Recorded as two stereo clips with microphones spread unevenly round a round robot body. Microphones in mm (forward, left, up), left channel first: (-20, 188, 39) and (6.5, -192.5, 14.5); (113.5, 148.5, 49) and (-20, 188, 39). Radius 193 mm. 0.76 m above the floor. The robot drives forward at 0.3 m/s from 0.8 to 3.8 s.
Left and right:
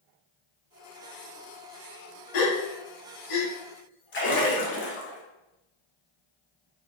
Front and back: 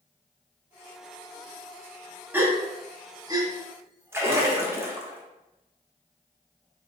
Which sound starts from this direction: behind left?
A splash, at 4.1 s.